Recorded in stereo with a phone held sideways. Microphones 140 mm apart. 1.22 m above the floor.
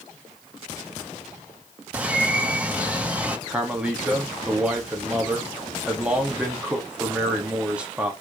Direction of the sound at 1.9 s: 10° right (ahead or behind).